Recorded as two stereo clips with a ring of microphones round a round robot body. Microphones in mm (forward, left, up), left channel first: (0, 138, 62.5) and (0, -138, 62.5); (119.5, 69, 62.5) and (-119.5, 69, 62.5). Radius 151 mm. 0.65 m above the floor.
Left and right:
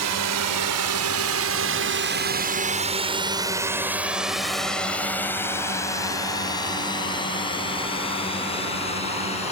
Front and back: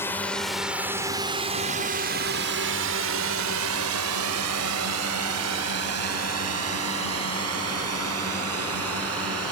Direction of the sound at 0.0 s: 80° right.